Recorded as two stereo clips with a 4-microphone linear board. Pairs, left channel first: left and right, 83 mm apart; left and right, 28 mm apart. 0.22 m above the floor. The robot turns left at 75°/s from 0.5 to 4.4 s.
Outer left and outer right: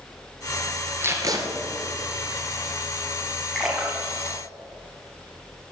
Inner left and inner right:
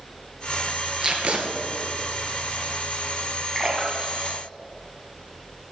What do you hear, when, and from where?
1.0 s tape being pulled: 25° right, 1.9 m; by 1.4 s 60° right, 1.9 m
3.5 s a splash: 5° left (ahead or behind), 2 m; by 5.6 s 40° right (ahead or behind), 2 m